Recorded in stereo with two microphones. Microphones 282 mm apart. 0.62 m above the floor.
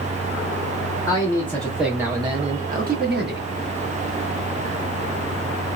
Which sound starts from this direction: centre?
A man speaking, at 1.1 s.